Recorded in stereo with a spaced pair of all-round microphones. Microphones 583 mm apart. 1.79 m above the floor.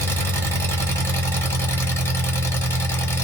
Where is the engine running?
5° left (ahead or behind), 0.9 m.